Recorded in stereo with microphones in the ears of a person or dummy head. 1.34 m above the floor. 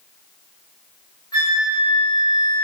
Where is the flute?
20° left (ahead or behind), 1.1 m.